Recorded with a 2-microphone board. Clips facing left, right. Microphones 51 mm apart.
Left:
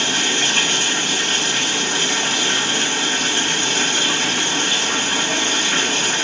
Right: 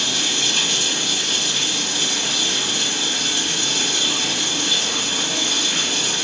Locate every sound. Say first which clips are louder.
0.0 s running water: left 4 dB; 40° left (ahead or behind), 1.1 m